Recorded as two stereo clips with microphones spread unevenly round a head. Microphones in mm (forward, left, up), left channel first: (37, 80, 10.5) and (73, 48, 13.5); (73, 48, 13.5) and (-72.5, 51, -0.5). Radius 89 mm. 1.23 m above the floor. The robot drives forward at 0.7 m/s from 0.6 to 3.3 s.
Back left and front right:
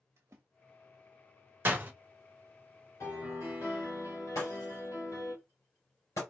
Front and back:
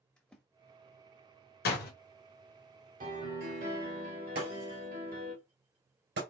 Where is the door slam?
10° left, 1.4 m.